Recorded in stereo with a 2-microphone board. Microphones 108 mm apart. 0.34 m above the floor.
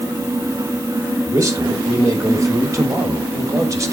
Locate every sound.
1.3 s a man speaking: 30° right (ahead or behind), 1.5 m